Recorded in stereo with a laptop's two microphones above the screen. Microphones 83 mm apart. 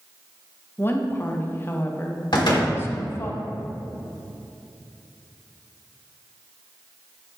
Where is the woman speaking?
25° left (ahead or behind), 0.6 m.